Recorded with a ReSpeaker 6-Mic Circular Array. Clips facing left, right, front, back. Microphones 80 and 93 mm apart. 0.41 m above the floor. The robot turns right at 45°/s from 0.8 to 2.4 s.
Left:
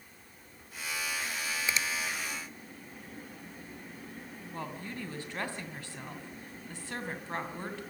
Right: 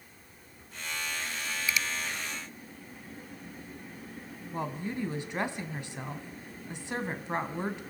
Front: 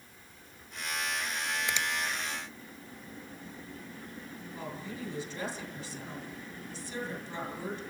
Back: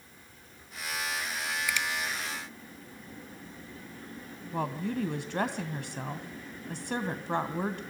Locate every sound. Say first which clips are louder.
1.7 s a finger snap: right 2 dB, back 2 dB; 45° left, 0.7 m; by 1.9 s 55° left, 0.7 m
4.5 s a woman speaking: right 6 dB, back 10 dB; 160° right, 2.5 m